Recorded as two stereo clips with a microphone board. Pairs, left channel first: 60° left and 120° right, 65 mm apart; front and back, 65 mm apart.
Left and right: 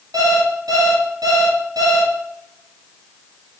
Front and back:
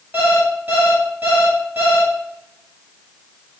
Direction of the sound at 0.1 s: 120° right.